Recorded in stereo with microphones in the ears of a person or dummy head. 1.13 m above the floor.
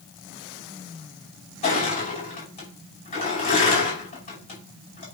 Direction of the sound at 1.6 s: 30° left (ahead or behind).